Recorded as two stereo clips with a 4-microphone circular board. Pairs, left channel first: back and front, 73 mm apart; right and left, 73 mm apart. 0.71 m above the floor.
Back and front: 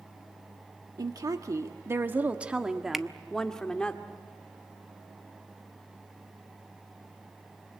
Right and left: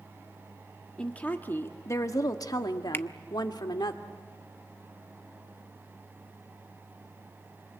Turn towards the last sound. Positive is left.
turn(degrees=-85)